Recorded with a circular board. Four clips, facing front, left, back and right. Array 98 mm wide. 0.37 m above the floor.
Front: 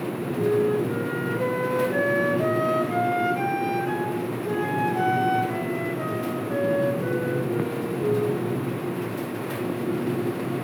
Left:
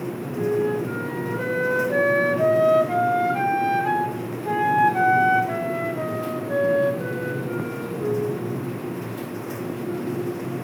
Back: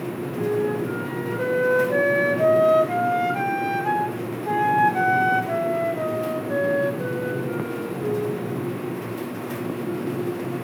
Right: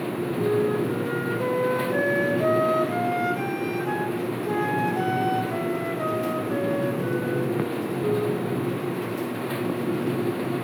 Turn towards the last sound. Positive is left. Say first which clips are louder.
# left 1 dB, front 2 dB
turn(degrees=130)